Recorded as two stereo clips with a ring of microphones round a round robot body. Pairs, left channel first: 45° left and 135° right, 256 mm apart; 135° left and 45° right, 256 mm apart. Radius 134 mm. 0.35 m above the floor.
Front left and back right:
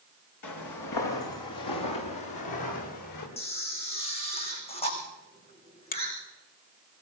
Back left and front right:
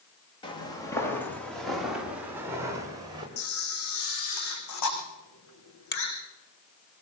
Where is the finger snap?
95° left, 2 m.